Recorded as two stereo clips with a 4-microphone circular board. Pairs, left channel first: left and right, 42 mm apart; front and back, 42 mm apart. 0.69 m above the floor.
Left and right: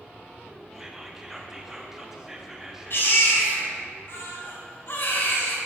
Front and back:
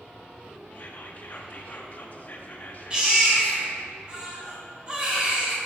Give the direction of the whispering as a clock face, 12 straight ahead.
12 o'clock.